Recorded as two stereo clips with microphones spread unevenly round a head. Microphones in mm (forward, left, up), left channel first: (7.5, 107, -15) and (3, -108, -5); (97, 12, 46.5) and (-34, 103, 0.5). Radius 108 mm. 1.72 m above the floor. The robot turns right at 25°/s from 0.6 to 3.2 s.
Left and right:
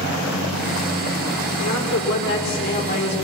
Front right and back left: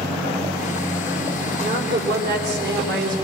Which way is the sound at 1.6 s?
115° left.